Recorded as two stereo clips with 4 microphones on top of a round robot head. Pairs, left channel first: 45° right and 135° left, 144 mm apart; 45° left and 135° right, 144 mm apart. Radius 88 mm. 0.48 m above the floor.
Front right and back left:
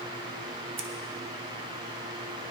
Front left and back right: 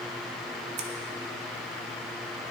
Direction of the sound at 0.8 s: 175° right.